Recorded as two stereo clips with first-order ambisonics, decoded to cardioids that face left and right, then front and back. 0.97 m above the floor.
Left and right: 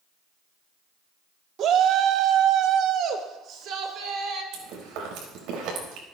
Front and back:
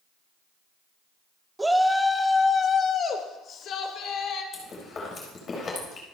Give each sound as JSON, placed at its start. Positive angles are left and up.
{"t": 1.6, "sound": "a shout", "azimuth_deg": -105, "distance_m": 0.9}
{"t": 4.5, "sound": "chewing", "azimuth_deg": -65, "distance_m": 4.5}